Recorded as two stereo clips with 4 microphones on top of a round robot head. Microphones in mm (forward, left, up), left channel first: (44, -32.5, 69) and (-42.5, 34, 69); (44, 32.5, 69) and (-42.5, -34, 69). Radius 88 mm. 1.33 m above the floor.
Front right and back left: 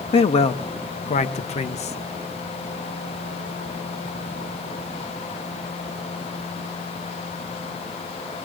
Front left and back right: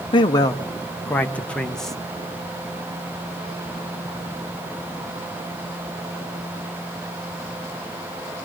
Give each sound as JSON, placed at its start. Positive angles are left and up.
{"t": 0.1, "sound": "a man speaking", "azimuth_deg": -5, "distance_m": 1.0}